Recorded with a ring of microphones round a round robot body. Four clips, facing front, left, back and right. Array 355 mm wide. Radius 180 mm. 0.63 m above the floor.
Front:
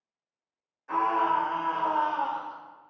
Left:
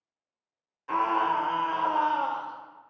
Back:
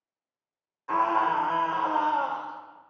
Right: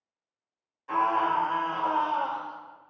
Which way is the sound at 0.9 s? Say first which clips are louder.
Even, back 1 dB; 160° left.